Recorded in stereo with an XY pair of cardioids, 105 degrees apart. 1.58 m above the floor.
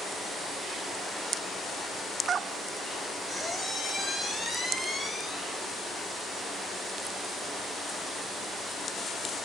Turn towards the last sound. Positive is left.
turn(degrees=30)